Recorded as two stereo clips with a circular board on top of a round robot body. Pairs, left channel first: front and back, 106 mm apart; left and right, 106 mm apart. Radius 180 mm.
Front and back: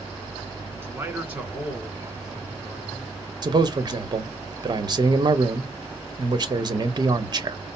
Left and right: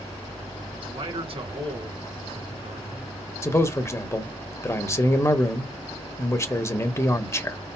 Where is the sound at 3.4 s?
145° left, 1.2 m.